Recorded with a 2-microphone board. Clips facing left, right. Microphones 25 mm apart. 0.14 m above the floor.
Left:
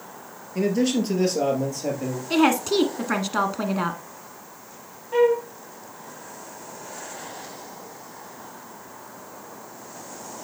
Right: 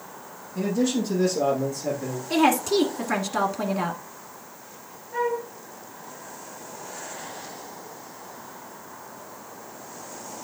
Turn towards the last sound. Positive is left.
turn(degrees=70)  # may be behind; listen again after turning